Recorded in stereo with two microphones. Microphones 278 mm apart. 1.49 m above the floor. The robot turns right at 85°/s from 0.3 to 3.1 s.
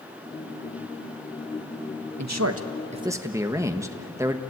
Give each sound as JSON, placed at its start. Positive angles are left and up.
{"t": 2.2, "sound": "a man speaking", "azimuth_deg": -90, "distance_m": 1.3}